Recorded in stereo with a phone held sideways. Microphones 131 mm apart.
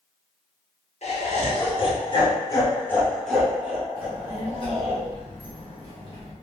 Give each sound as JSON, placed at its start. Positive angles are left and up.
{"t": 1.0, "sound": "laughter", "side_deg": 60, "distance_m": 1.7}
{"t": 4.0, "sound": "a child speaking", "side_deg": 40, "distance_m": 1.2}